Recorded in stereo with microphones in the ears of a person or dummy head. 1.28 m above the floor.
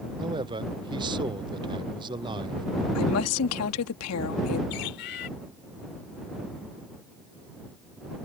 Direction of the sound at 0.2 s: 25° right (ahead or behind).